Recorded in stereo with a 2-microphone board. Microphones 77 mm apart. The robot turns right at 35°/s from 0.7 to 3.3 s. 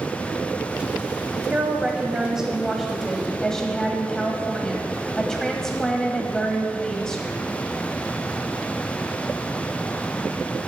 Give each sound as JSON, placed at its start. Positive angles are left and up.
{"t": 1.5, "sound": "a woman speaking", "side_deg": -20, "distance_m": 1.0}